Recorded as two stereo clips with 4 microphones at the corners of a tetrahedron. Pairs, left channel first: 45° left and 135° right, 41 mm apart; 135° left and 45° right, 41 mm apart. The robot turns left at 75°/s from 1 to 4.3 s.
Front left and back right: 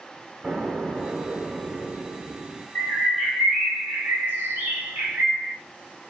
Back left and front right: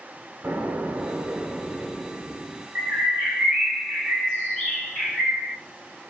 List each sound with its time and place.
0.4 s an explosion: 65° right, 1.0 m; by 2.6 s 175° left, 1.0 m
2.8 s a bird: 20° right, 1.8 m; by 5.5 s 140° right, 1.8 m